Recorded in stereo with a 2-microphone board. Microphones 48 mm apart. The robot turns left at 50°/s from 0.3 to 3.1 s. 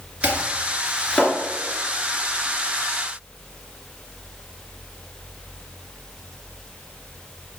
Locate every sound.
0.2 s chopping: 25° right (ahead or behind), 2.5 m; by 1.3 s 25° left (ahead or behind), 2.5 m